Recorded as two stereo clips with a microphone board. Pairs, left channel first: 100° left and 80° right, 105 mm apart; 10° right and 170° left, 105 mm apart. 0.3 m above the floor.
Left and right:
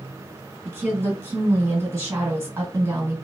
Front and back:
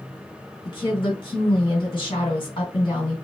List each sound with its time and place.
0.7 s a woman speaking: 20° right, 1.8 m